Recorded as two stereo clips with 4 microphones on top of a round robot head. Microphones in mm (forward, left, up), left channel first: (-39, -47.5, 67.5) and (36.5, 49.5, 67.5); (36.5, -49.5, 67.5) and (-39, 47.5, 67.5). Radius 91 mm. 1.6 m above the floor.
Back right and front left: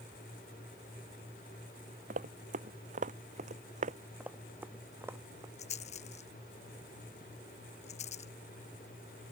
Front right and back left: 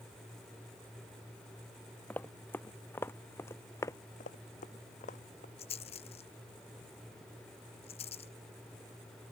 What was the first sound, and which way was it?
Running footsteps, 25° left.